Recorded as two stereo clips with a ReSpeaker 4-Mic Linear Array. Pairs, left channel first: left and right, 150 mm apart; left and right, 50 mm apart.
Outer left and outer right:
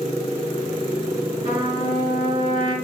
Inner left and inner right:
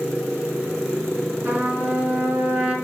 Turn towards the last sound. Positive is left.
turn(degrees=-35)  # may be behind; listen again after turning